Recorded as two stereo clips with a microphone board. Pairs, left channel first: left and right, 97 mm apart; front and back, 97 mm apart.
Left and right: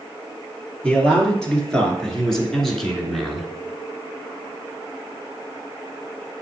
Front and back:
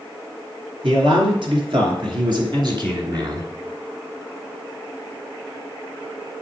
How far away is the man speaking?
About 3 m.